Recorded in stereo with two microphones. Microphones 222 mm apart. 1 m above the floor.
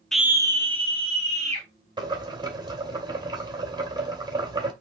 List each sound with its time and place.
0.1 s a scream: 5° left (ahead or behind), 0.5 m; by 1.7 s 30° right (ahead or behind), 2.5 m
2.0 s boiling: 20° right (ahead or behind), 2 m